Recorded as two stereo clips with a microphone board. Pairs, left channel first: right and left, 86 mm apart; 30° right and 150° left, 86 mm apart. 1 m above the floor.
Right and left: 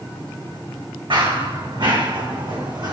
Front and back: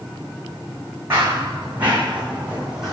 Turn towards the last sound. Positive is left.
turn(degrees=65)